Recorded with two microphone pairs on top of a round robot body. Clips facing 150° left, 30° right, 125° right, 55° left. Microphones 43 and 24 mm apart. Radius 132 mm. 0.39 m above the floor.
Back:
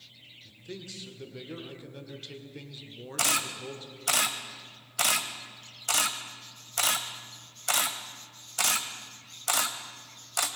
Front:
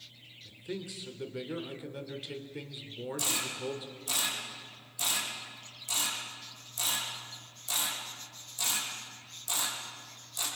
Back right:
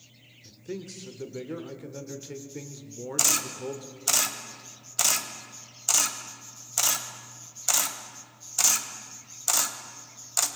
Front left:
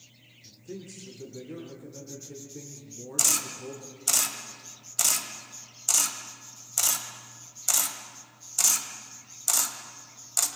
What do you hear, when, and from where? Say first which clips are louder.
0.5 s a man speaking: front 3 dB, back right 4 dB; 95° right, 2 m
3.2 s a camera shutter: back 7 dB, back right 1 dB; 155° left, 1.3 m